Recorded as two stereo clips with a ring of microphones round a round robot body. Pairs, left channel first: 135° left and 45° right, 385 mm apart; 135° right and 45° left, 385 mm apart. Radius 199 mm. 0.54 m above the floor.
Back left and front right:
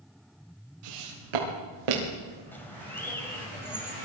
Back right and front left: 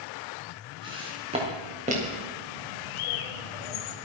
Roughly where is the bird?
Behind right.